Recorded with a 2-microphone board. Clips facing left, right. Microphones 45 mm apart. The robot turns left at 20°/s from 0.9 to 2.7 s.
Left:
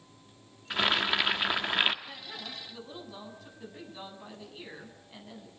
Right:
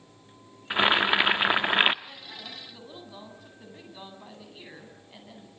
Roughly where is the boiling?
Right.